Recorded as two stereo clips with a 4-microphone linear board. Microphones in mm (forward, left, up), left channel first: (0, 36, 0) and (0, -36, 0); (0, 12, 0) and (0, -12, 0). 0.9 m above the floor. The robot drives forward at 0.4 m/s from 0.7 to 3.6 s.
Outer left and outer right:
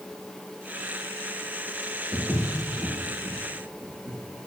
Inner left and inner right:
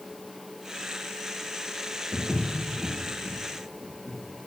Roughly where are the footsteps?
Right.